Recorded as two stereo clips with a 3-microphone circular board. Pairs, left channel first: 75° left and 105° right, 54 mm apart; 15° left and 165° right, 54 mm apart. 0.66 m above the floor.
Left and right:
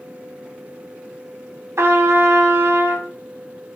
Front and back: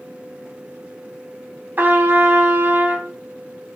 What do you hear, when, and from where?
1.8 s a trumpet: 120° right, 0.8 m